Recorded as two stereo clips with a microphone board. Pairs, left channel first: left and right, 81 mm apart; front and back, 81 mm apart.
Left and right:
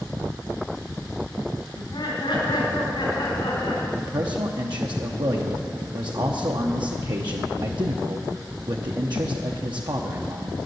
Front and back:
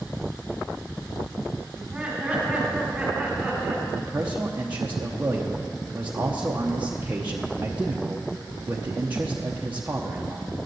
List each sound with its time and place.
1.8 s laughter: 95° left, 3.5 m
4.0 s a man speaking: 110° right, 0.8 m